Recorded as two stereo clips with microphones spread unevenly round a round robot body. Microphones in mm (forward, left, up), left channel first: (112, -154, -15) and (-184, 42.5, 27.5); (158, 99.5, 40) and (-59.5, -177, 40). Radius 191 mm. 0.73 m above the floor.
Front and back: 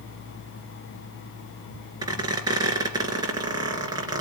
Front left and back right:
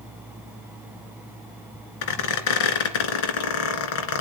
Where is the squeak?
70° left, 2 m.